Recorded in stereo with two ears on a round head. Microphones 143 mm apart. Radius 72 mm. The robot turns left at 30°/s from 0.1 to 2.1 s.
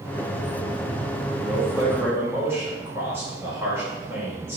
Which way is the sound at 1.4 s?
10° right (ahead or behind).